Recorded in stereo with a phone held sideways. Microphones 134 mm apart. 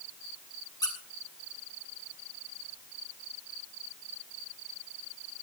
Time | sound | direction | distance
0.8 | a squeak | 30° left (ahead or behind) | 2.5 m